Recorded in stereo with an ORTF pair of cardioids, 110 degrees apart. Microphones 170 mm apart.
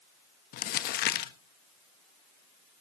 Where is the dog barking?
No dog barking in this recording.